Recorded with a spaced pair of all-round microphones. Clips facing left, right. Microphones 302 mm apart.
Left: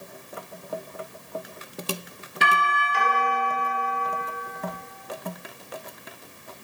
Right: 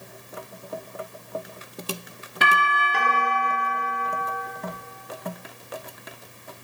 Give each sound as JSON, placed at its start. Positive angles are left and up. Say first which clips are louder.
{"t": 2.4, "sound": "a doorbell", "louder": "right 1 dB", "side_deg": -65, "distance_m": 3.0}